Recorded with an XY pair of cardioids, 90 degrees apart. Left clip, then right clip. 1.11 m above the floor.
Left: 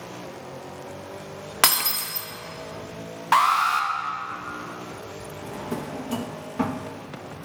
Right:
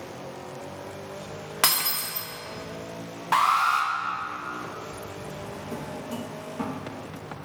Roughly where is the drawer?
Ahead left.